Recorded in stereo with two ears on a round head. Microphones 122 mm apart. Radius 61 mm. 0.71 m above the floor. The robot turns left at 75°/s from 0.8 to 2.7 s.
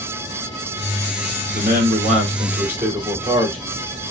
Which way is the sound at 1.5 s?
75° right.